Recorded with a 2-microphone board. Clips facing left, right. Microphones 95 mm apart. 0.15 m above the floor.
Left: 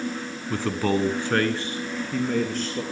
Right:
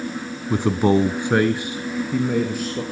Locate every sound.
0.5 s a man speaking: 15° right (ahead or behind), 1.2 m; by 2.8 s 10° right (ahead or behind), 3 m